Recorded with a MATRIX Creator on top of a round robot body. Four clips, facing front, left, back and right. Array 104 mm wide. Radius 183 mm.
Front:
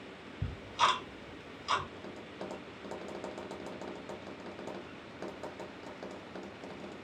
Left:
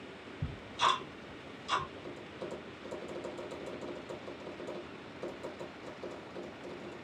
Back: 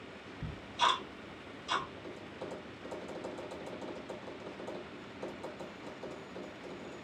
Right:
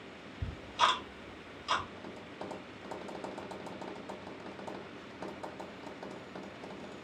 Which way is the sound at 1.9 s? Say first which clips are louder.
Left 1 dB, front 1 dB; 30° right.